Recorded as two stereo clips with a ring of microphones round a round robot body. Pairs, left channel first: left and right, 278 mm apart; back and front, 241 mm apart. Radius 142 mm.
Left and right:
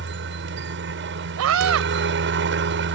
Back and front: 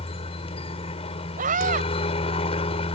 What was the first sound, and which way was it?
A helicopter, 120° right.